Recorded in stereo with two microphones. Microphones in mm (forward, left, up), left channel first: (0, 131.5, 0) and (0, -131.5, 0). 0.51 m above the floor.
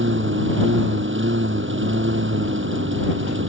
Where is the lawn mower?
50° right (ahead or behind).